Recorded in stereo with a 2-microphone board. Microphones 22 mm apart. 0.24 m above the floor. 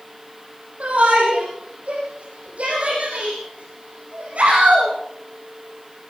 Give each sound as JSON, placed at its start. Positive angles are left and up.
{"t": 0.8, "sound": "a shout", "side_deg": -80, "distance_m": 9.5}